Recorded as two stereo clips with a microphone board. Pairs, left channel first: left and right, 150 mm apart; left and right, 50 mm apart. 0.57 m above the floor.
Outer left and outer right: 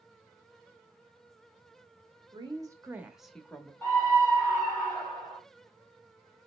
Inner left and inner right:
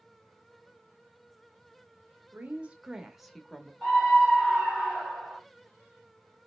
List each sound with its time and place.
2.3 s a woman speaking: 30° right (ahead or behind), 0.9 m; by 3.7 s 15° left (ahead or behind), 0.9 m
3.8 s a scream: 15° left (ahead or behind), 1.2 m